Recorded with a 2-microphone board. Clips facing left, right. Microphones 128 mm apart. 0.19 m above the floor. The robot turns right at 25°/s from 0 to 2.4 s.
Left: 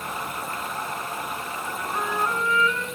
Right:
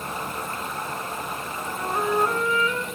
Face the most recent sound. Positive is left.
turn(degrees=-35)  # may be behind; listen again after turning